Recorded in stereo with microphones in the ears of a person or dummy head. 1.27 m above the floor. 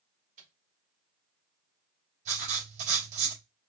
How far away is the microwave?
About 1.7 m.